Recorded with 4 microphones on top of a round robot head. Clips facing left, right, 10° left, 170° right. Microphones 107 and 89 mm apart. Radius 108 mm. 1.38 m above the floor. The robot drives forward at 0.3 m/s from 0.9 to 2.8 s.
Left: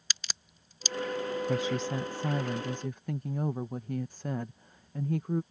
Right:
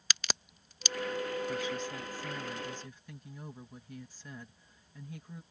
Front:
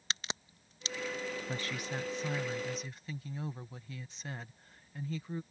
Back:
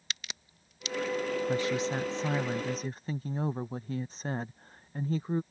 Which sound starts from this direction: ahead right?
A crack, at 0.1 s.